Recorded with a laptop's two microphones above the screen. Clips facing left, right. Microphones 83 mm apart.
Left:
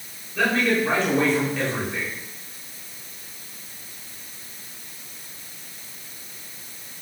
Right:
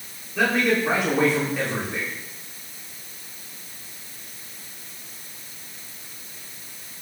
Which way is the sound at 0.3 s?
10° right (ahead or behind).